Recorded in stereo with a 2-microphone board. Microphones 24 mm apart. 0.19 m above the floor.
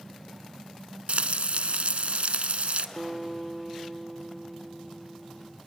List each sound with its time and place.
1.1 s frying: 55° right (ahead or behind), 1.0 m
3.0 s a guitar: 5° right (ahead or behind), 0.8 m